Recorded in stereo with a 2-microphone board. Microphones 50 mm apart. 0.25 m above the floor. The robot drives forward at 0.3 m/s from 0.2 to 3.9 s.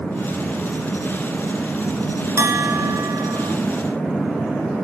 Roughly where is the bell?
Right.